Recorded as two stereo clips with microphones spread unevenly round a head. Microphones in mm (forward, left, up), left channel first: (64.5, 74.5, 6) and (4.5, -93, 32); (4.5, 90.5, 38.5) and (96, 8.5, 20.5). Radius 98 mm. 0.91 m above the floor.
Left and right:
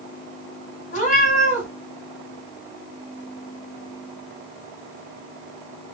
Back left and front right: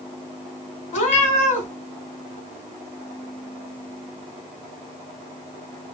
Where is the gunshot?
I don't hear a gunshot.